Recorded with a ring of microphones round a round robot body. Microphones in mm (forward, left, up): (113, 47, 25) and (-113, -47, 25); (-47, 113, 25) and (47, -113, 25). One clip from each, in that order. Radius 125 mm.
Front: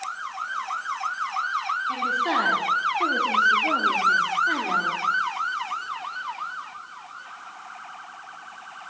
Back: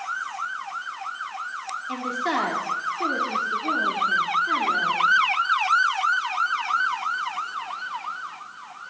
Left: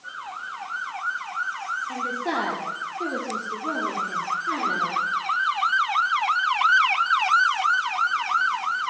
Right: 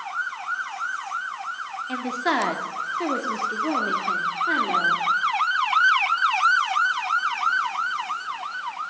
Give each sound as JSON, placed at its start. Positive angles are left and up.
{"t": 1.9, "sound": "a woman speaking", "azimuth_deg": -90, "distance_m": 1.6}